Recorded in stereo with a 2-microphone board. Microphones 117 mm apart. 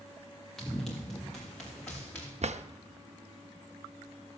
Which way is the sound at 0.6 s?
5° left (ahead or behind).